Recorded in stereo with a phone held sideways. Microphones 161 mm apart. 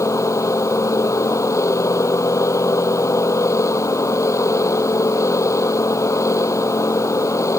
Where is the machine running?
20° left (ahead or behind).